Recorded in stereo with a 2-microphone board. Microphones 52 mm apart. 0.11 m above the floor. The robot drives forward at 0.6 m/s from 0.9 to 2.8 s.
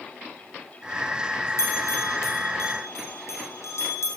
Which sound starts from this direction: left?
A bell, at 1.6 s.